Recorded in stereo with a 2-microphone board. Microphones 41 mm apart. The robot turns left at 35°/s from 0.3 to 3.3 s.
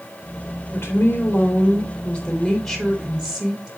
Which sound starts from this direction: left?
A woman speaking, at 0.7 s.